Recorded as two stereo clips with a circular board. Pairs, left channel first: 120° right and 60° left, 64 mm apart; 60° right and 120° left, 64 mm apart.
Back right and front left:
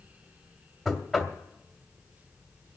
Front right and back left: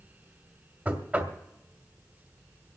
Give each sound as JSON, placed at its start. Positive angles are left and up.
{"t": 0.8, "sound": "knocking", "azimuth_deg": 140, "distance_m": 1.3}